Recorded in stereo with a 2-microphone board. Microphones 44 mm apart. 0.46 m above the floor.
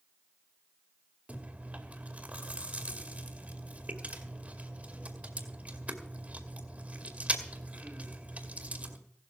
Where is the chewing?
35° right (ahead or behind), 2 m.